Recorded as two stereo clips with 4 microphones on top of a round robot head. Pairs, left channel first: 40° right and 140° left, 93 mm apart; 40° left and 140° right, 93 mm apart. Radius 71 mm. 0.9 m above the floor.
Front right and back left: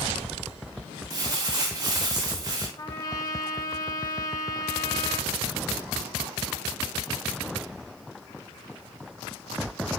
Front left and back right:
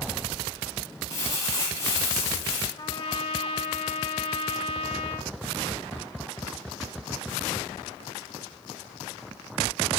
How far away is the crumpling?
About 5.5 m.